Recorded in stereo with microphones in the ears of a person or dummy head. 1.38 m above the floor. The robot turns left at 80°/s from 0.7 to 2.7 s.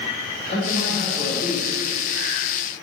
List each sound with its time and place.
0.5 s a man speaking: 40° left, 2.5 m; by 1.8 s 45° right, 2.5 m